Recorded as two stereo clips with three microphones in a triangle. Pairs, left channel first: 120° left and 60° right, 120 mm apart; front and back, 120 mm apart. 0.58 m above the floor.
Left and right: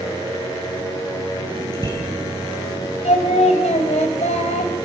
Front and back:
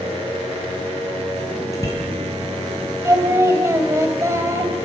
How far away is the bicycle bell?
About 8 m.